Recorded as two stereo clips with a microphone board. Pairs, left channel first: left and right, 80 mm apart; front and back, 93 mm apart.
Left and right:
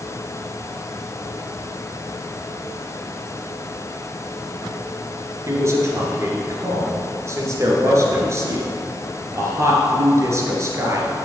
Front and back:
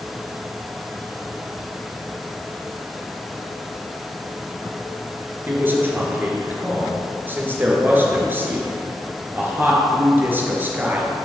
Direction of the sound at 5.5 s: 120° right.